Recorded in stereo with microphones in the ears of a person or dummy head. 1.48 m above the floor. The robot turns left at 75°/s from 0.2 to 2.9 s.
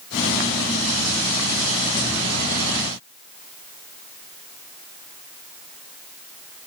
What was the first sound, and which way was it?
Only background noise.